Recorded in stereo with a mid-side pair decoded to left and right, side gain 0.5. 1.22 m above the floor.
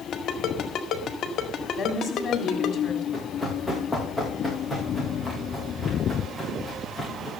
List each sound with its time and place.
0.1 s a ringtone: 55° left, 1.9 m
1.8 s a woman speaking: 40° left, 3.5 m
3.1 s running footsteps: straight ahead, 8 m